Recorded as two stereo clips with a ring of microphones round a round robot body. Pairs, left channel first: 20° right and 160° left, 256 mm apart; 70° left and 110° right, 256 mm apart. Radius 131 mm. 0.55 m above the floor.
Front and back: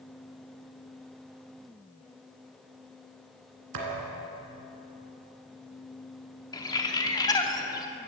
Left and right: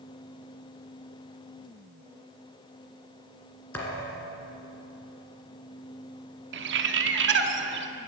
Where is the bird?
95° right, 0.8 m.